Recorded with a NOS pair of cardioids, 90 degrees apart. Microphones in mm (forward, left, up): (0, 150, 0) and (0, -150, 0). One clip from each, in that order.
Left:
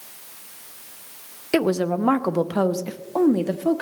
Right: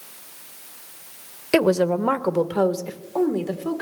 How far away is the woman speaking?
About 0.8 m.